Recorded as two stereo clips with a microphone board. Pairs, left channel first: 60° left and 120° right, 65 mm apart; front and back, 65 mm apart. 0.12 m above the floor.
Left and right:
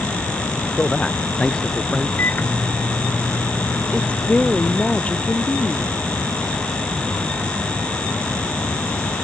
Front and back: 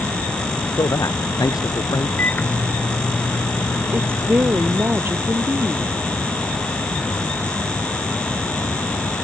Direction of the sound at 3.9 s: 130° left.